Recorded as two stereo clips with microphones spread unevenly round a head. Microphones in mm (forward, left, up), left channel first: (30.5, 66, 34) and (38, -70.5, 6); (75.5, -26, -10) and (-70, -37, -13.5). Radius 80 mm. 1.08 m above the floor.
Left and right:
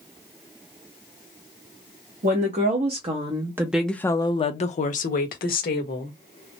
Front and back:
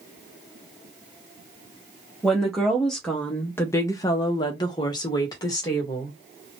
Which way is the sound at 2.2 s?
85° right.